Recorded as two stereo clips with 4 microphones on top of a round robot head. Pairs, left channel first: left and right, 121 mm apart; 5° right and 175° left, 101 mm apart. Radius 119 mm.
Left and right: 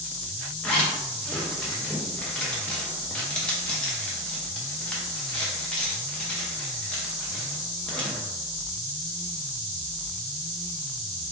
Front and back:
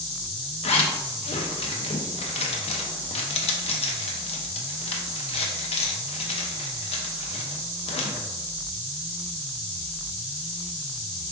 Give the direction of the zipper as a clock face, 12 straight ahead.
12 o'clock.